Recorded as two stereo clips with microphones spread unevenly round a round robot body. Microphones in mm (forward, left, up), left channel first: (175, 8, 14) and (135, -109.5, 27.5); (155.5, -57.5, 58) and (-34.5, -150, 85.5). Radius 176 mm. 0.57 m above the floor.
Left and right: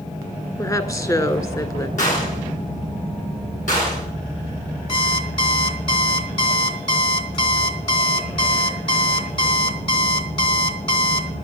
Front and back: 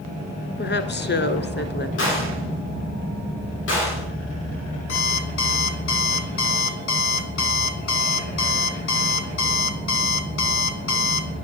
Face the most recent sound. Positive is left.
turn(degrees=30)